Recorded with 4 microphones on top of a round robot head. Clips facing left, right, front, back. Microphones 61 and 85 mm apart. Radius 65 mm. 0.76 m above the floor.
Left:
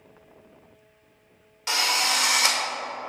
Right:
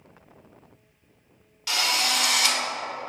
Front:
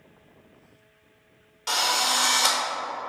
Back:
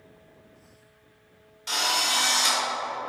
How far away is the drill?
About 1.9 m.